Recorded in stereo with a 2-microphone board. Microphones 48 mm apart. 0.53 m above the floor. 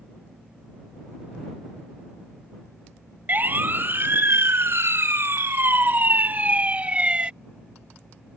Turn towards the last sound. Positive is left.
turn(degrees=-25)  # may be behind; listen again after turning